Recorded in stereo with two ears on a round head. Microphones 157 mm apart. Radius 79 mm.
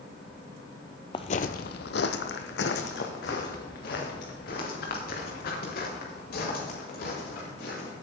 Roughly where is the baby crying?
No baby crying in this recording.